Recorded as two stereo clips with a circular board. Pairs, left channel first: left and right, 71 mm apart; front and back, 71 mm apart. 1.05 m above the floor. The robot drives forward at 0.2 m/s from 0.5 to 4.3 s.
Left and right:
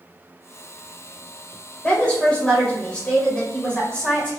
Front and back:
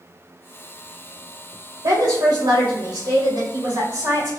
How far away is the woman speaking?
About 1.2 m.